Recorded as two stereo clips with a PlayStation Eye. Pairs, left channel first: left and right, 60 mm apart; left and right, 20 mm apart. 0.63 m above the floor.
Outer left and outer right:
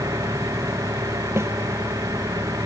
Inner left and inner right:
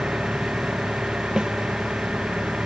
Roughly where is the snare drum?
Right.